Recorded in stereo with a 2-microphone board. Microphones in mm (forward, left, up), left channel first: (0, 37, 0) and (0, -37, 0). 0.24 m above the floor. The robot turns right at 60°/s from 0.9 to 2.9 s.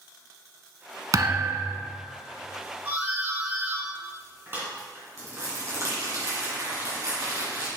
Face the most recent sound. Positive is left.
turn(degrees=-45)  # may be behind; listen again after turning